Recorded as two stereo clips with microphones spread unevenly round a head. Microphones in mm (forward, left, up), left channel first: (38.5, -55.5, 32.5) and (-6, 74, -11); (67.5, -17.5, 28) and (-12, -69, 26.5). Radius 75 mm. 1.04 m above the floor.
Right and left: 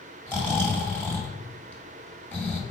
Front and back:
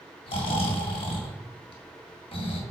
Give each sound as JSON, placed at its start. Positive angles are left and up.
{"t": 0.3, "sound": "snoring", "azimuth_deg": 10, "distance_m": 2.0}